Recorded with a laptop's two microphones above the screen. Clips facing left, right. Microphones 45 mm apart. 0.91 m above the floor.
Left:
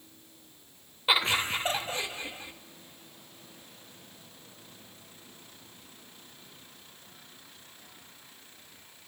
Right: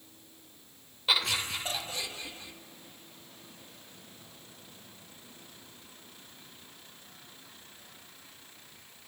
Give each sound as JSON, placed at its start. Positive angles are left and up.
{"t": 1.1, "sound": "laughter", "side_deg": 20, "distance_m": 0.7}